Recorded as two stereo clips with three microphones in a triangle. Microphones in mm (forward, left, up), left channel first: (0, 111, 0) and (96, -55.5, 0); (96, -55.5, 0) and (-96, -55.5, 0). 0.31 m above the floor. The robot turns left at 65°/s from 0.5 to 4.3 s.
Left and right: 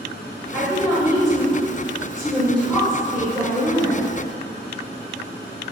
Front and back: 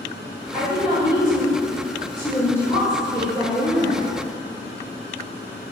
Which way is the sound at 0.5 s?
Straight behind.